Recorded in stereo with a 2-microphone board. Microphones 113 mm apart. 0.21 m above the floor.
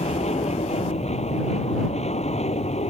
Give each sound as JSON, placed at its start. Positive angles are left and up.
{"t": 0.0, "sound": "an aircraft", "side_deg": 75}